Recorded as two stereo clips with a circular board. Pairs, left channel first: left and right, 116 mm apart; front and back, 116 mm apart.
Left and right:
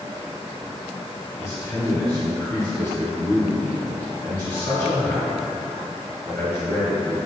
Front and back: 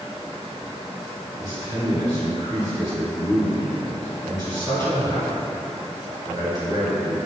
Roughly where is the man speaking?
Behind left.